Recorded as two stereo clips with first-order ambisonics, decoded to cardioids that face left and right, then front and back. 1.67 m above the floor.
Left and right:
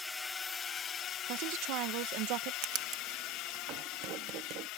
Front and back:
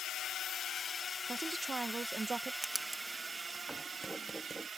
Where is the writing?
95° right.